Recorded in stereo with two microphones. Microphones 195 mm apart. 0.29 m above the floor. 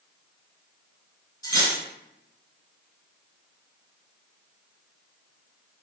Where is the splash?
No splash in this recording.